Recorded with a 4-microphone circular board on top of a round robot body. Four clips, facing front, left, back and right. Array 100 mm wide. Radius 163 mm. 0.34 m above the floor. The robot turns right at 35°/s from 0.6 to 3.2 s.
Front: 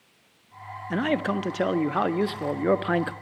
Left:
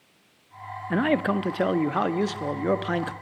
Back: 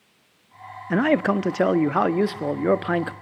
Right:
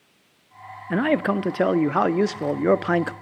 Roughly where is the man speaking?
Behind.